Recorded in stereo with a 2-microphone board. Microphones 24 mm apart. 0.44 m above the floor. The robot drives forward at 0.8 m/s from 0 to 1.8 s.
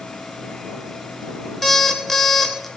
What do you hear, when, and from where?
1.6 s an alarm clock: 5° left (ahead or behind), 0.8 m